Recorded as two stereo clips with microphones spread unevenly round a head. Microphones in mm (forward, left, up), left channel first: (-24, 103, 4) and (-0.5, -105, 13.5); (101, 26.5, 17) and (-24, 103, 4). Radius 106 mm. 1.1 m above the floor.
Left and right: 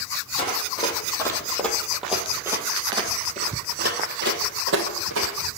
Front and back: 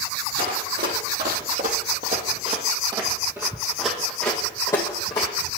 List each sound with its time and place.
0.4 s running footsteps: 160° left, 2.5 m; by 5.3 s 95° right, 2.5 m